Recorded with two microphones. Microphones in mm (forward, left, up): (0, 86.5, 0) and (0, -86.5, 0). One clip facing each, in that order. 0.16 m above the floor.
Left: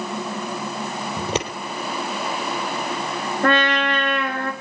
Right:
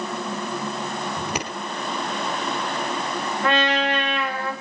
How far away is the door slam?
No door slam in this recording.